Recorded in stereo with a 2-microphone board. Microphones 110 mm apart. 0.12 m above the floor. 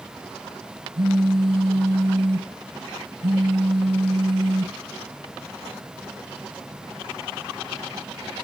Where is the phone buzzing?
45° right (ahead or behind), 0.7 m.